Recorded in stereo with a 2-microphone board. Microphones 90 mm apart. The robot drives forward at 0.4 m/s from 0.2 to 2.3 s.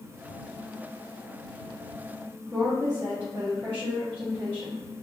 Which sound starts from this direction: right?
A woman speaking, at 2.5 s.